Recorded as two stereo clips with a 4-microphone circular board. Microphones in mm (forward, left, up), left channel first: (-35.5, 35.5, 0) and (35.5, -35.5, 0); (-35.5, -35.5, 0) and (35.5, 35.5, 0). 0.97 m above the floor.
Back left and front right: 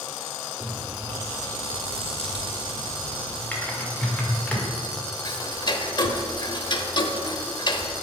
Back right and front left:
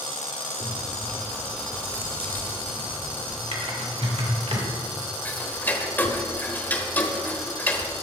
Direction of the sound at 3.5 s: 60° left.